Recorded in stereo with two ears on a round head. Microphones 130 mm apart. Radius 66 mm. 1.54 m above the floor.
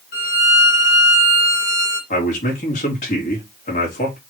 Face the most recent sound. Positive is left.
turn(degrees=50)  # may be behind; listen again after turning